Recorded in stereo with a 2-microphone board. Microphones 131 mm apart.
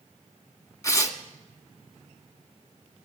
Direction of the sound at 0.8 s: 25° left (ahead or behind).